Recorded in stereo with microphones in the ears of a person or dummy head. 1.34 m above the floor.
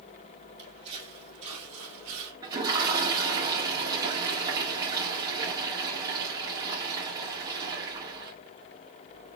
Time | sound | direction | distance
0.6 | footsteps | 35° right (ahead or behind) | 3.5 m
2.4 | a toilet flushing | 25° right (ahead or behind) | 2 m